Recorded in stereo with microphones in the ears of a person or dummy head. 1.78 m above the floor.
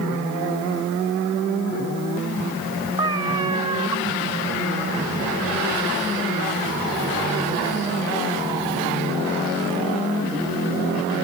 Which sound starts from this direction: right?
A cat meowing, at 3.0 s.